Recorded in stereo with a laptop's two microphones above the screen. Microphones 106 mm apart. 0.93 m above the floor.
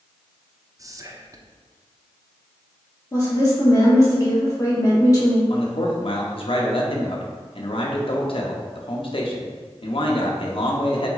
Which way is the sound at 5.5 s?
55° left (ahead or behind).